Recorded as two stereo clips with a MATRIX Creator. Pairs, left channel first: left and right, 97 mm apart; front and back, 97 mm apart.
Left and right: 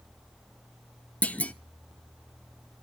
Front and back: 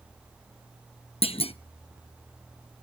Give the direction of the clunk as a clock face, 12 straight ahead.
12 o'clock.